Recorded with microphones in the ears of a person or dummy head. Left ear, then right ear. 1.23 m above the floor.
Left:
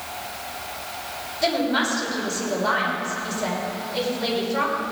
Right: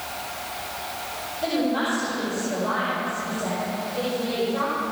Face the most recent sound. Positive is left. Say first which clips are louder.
# left 3 dB
turn(degrees=70)  # may be behind; listen again after turning